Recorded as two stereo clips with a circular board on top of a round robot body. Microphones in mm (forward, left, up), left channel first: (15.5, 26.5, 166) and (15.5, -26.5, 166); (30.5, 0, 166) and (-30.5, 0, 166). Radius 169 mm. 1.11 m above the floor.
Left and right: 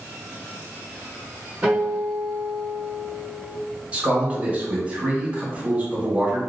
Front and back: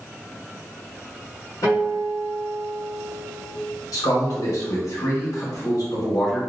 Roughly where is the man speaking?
Ahead right.